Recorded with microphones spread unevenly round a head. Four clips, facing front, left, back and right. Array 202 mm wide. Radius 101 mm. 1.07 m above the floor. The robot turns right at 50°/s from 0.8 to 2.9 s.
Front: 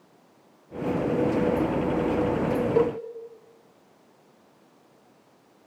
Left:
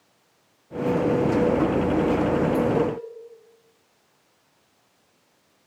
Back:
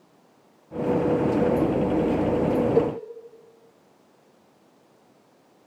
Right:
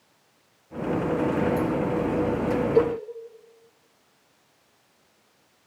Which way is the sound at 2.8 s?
15° left.